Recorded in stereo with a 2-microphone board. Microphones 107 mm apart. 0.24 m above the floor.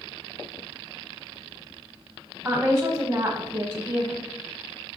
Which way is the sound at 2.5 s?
20° right (ahead or behind).